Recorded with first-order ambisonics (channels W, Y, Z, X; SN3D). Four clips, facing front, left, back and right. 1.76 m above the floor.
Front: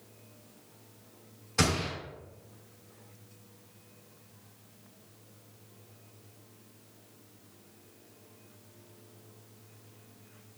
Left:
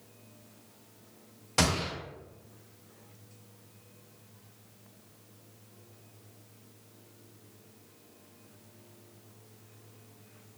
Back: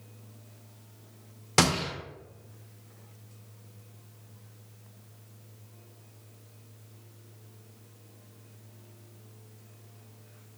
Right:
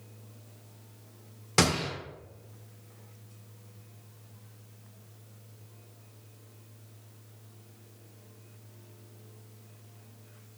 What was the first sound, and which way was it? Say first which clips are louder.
A gunshot: right 2 dB, back 4 dB; 160° right.